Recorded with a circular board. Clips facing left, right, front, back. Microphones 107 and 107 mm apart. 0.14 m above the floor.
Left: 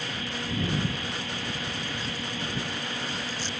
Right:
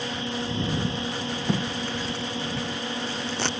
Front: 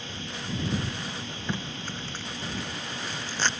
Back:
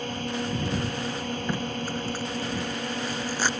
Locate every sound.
0.0 s a drone: 150° right
1.5 s tape being pulled: 100° right